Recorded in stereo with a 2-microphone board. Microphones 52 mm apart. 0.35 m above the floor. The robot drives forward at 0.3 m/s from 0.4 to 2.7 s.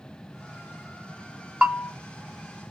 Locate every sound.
1.6 s a bell: 20° right (ahead or behind), 0.9 m; by 1.9 s 15° right (ahead or behind), 1.0 m